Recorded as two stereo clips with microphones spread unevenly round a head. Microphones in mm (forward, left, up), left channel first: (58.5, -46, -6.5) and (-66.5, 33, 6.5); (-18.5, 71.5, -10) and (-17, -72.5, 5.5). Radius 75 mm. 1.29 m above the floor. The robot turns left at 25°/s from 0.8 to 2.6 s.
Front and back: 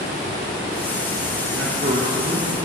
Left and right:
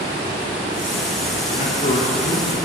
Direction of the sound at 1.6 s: 130° left.